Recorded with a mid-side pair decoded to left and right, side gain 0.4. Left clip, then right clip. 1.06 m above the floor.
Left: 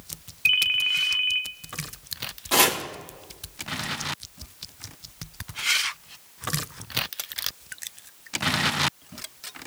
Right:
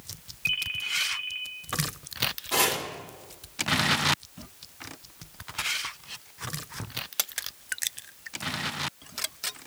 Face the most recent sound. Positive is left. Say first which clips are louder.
# left 6 dB
turn(degrees=55)